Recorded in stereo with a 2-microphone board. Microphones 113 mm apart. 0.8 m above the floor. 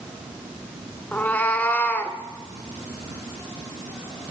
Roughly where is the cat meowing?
Centre.